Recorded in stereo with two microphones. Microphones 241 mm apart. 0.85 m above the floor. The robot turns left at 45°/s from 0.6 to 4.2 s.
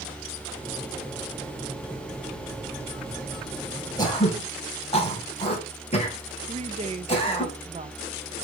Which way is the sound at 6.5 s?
25° right (ahead or behind).